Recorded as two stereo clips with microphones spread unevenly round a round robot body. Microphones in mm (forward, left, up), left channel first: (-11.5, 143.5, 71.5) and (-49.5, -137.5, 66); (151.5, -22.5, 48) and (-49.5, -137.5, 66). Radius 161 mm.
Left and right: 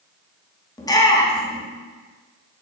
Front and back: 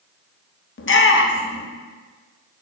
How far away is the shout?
About 1.1 m.